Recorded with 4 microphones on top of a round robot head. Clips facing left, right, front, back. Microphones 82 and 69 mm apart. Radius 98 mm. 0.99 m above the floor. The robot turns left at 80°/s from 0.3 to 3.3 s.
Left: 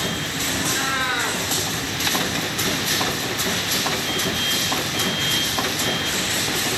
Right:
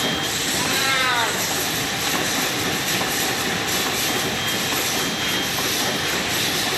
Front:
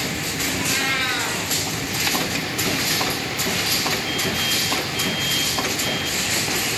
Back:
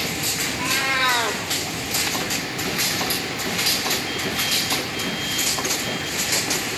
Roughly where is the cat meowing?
Right.